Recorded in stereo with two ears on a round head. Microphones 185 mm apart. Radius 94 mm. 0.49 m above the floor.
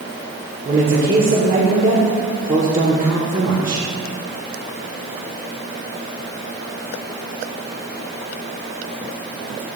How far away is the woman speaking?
About 1.6 m.